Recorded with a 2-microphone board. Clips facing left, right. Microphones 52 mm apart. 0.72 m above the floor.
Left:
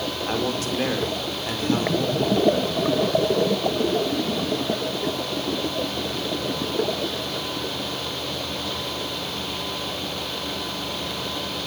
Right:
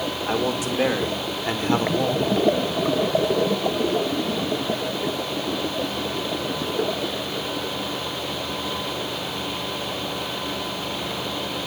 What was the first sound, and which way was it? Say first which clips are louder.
A man speaking: right 2 dB; 5° right (ahead or behind).